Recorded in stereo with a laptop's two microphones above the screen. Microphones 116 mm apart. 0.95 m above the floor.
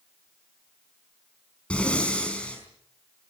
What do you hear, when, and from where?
1.7 s breathing: 10° left (ahead or behind), 5 m